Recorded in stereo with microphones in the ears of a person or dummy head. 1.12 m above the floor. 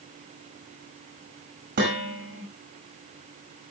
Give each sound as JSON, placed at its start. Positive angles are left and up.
{"t": 1.8, "sound": "dishes clattering", "side_deg": -45, "distance_m": 5.0}